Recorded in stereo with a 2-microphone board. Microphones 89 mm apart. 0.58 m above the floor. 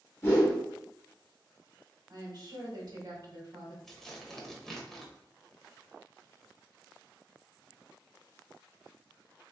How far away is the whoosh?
About 1.4 m.